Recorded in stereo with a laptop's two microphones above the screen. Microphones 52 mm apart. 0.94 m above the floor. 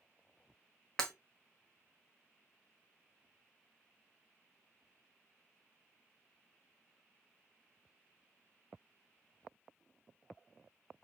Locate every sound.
1.0 s breaking glass: 15° left (ahead or behind), 1.2 m